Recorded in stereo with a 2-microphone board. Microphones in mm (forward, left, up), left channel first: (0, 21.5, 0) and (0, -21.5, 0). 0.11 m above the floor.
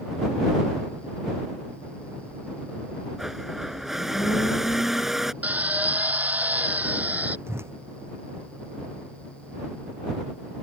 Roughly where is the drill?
Right.